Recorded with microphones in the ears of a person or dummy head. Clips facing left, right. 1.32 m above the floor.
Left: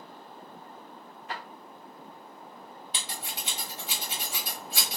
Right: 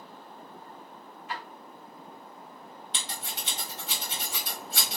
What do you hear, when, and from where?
1.3 s a drawer: 40° left (ahead or behind), 1.2 m
2.9 s scissors: 10° left (ahead or behind), 1.5 m